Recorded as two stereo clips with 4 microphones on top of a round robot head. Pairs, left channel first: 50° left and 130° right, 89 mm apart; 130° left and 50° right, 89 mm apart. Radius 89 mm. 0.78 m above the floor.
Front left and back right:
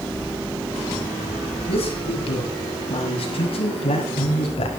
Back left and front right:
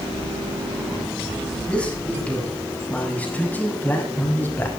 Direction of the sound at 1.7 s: 50° left.